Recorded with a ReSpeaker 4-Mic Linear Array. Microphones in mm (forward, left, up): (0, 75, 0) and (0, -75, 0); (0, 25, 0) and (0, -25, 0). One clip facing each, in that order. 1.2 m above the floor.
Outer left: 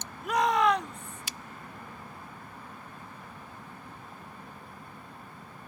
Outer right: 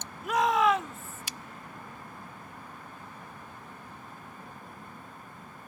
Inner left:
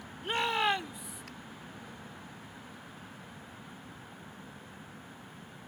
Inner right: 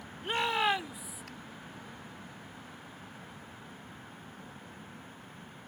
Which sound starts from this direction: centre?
A shout, at 0.2 s.